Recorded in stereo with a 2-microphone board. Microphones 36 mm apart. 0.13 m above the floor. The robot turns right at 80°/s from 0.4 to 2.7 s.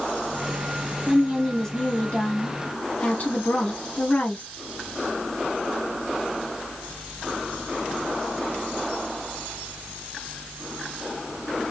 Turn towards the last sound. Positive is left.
turn(degrees=105)